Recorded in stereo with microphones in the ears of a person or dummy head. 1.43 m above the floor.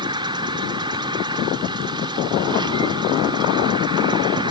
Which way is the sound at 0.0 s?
25° right (ahead or behind).